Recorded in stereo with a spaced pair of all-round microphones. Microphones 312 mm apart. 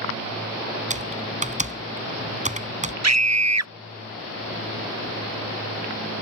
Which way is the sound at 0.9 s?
25° right (ahead or behind).